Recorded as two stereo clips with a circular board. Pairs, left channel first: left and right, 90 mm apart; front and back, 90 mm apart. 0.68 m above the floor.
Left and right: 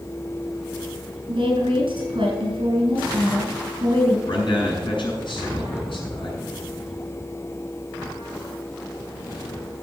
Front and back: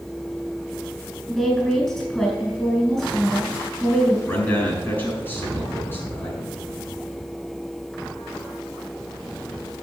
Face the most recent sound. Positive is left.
turn(degrees=65)